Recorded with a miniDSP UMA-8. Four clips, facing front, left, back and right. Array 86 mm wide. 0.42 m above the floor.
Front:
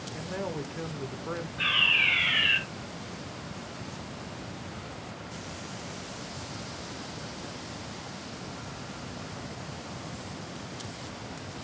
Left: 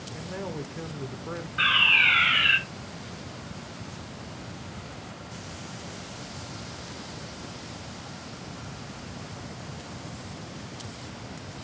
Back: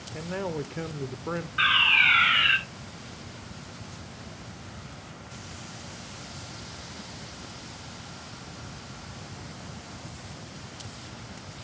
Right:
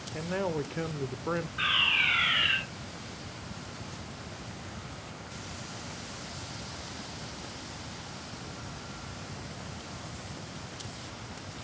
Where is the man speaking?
125° right, 0.9 m.